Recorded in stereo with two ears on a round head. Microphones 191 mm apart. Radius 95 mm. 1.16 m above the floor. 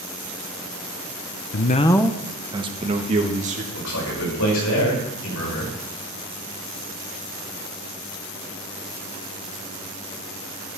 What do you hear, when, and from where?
1.5 s a man speaking: 50° left (ahead or behind), 0.6 m; by 3.6 s 35° right (ahead or behind), 1.9 m
3.7 s a man speaking: 75° left (ahead or behind), 5 m